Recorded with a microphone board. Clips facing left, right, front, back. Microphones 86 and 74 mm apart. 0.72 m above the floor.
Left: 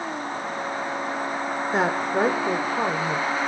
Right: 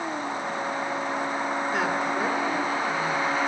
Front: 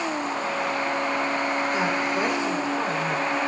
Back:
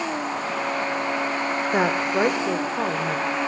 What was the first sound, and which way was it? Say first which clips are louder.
A woman speaking: left 6 dB, back 3 dB; 150° left.